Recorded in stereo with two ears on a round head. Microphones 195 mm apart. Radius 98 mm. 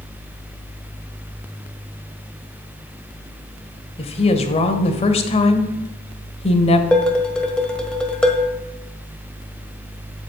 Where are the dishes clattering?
5° left (ahead or behind), 1.3 m.